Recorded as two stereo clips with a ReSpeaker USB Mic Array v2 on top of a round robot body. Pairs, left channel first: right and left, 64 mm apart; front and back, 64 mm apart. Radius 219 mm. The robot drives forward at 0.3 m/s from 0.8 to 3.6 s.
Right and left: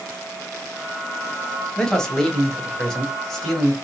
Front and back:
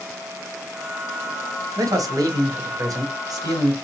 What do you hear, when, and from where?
1.8 s a man speaking: 170° right, 1.1 m